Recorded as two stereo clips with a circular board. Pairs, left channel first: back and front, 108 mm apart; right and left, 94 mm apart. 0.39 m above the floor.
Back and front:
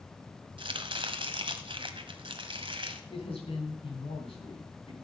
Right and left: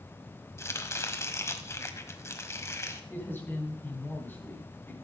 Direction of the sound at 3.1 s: 155° right.